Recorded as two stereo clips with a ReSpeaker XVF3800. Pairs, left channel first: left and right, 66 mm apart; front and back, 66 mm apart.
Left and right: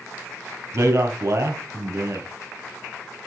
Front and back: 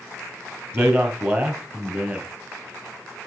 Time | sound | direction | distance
0.7 | a man speaking | 125° right | 3.5 m